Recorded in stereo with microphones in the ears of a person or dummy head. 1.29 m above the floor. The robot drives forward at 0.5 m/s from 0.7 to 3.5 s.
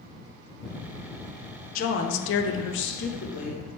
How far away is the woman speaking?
About 0.6 m.